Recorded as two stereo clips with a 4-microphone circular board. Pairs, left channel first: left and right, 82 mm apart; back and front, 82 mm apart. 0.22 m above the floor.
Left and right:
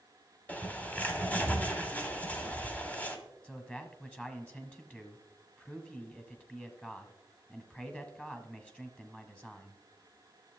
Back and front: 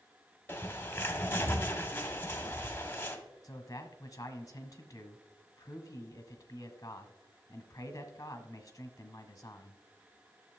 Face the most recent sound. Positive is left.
turn(degrees=160)